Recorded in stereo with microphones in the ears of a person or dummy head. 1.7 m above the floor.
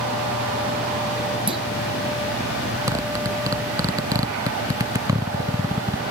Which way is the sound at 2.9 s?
20° right (ahead or behind).